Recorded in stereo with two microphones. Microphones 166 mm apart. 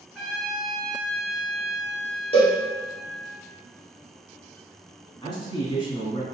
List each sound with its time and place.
0.1 s a trumpet: 5° right (ahead or behind), 1.0 m
2.3 s a cowbell: 35° left (ahead or behind), 1.3 m
5.2 s a man speaking: 30° left (ahead or behind), 1.3 m